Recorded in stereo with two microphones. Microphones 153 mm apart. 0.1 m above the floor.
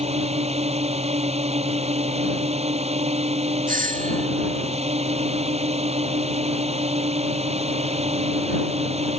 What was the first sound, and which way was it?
A drone, 45° right (ahead or behind).